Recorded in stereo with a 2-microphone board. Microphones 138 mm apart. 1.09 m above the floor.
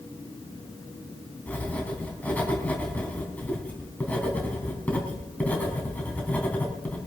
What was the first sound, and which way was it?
Writing, 10° left (ahead or behind).